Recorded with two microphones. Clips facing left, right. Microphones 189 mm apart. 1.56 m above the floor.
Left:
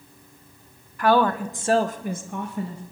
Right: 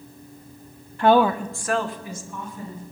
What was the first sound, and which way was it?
A woman speaking, 30° right (ahead or behind).